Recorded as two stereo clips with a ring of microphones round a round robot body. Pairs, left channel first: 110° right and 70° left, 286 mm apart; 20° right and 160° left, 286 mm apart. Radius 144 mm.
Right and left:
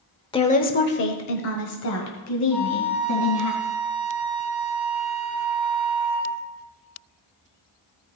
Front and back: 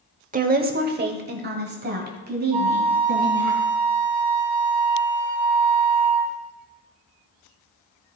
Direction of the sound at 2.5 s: 165° left.